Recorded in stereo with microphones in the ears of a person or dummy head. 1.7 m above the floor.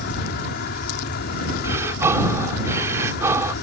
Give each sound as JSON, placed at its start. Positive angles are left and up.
{"t": 0.0, "sound": "an insect", "side_deg": 60}
{"t": 1.6, "sound": "breathing", "side_deg": -15}